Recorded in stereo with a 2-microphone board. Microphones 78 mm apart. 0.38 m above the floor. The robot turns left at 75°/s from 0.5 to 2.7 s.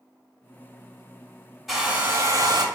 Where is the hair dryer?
5° right, 0.7 m; by 2.6 s 75° right, 0.7 m.